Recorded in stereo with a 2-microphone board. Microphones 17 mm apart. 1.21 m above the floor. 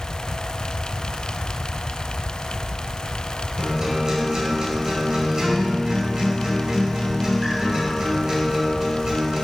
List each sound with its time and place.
3.6 s a guitar: 40° right (ahead or behind), 3.5 m